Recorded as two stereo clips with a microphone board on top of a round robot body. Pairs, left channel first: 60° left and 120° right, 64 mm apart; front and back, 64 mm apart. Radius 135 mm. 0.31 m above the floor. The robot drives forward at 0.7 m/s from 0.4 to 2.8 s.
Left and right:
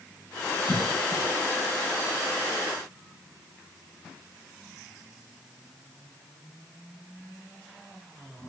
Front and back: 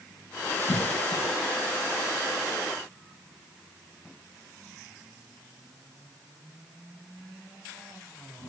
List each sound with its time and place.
0.7 s a cough: 10° right, 4 m